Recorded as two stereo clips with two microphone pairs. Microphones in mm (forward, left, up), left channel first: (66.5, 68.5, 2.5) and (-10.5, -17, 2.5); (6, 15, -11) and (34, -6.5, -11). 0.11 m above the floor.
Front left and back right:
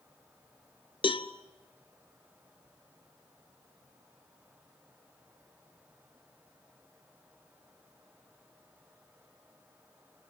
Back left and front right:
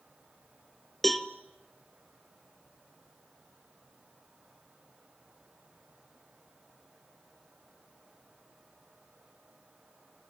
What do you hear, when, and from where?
1.0 s a cowbell: 55° left, 1.0 m